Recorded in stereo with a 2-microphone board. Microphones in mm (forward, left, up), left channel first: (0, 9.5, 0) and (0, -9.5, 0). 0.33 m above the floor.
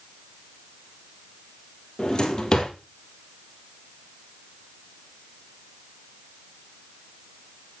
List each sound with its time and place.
2.0 s a drawer: 40° left (ahead or behind), 2.5 m